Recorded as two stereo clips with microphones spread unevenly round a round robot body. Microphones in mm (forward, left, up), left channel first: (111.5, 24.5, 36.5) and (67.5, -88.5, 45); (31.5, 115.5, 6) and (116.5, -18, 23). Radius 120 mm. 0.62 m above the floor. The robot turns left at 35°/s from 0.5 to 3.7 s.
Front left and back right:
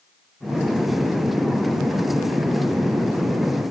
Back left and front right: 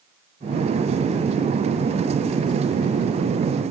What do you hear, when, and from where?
Only background noise.